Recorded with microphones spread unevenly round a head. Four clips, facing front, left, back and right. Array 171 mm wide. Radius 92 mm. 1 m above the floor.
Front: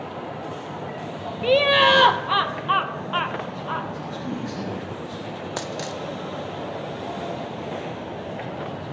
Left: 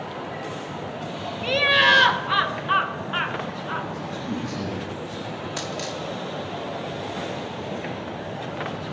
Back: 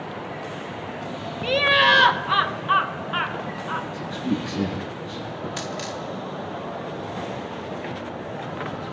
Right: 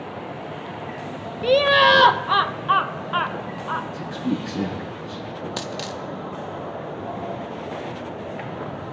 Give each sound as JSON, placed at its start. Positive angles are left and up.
{"t": 1.4, "sound": "laughter", "azimuth_deg": -55, "distance_m": 0.7}
{"t": 3.9, "sound": "a man speaking", "azimuth_deg": -120, "distance_m": 10.0}
{"t": 5.6, "sound": "a dropped coin", "azimuth_deg": -20, "distance_m": 0.6}